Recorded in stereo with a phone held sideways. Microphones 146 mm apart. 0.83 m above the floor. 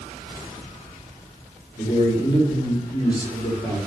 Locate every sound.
1.8 s a man speaking: 30° left (ahead or behind), 1.3 m